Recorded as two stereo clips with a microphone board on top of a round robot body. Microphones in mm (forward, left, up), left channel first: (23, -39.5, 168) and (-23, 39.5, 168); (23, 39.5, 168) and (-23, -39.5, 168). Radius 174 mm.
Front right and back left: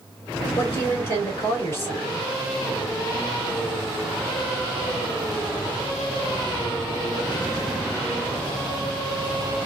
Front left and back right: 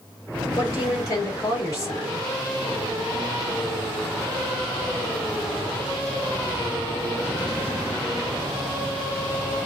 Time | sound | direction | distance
0.6 | a woman speaking | 5° left | 2 m